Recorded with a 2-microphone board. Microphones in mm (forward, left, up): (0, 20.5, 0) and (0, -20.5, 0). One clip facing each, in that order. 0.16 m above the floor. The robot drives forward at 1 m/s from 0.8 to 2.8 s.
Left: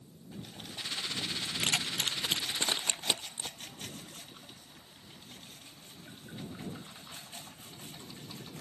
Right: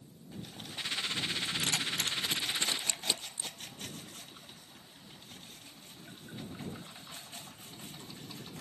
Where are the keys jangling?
60° left (ahead or behind); by 3.5 s 45° left (ahead or behind).